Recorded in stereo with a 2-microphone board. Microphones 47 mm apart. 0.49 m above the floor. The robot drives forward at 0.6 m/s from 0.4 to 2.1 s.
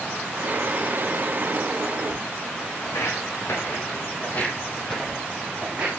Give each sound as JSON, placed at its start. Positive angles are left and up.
{"t": 2.8, "sound": "footsteps", "side_deg": 75, "distance_m": 1.9}